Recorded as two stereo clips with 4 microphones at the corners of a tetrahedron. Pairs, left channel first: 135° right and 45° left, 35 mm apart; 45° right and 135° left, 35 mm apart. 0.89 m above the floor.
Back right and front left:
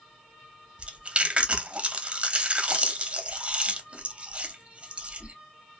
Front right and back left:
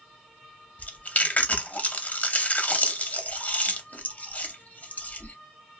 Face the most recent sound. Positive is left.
turn(degrees=-5)